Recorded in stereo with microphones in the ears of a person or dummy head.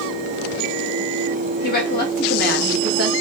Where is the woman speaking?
50° left (ahead or behind), 3 m.